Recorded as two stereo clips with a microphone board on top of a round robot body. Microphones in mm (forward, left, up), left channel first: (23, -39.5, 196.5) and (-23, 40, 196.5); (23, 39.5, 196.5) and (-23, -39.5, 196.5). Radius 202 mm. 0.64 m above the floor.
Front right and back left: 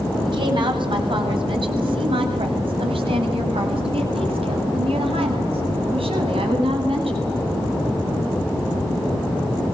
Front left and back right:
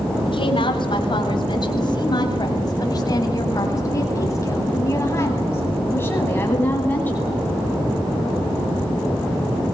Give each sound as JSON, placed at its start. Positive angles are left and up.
{"t": 0.2, "sound": "a woman speaking", "azimuth_deg": 90, "distance_m": 6.5}